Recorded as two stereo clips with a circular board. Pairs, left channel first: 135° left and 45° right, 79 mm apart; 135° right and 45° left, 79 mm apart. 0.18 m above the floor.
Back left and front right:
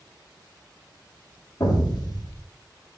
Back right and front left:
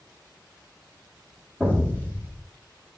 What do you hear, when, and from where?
1.6 s an explosion: 105° left, 3.5 m